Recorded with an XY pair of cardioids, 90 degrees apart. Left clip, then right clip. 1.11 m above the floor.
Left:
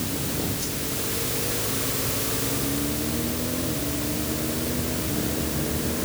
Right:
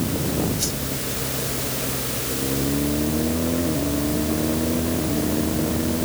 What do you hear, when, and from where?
0.6 s a whoosh: 65° right